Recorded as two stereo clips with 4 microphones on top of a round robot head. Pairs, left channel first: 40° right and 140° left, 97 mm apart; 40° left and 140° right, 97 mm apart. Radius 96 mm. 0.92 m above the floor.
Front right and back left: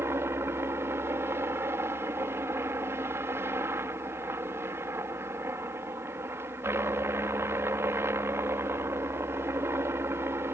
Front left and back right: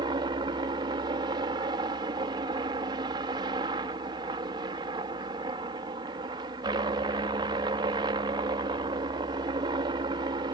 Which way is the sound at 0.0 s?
160° right.